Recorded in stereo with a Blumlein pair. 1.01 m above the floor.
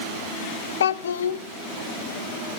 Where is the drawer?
No drawer in this recording.